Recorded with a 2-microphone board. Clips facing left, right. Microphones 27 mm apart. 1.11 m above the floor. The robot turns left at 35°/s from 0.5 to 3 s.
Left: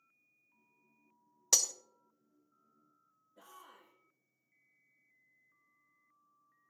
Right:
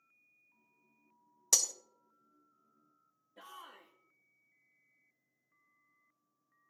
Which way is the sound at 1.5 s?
10° left (ahead or behind).